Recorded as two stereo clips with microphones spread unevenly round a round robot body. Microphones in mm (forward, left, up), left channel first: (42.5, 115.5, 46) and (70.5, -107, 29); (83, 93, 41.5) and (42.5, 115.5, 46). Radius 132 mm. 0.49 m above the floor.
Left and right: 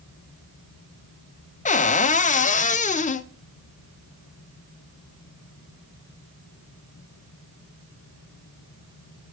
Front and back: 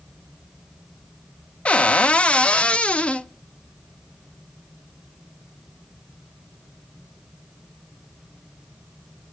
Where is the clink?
No clink in this recording.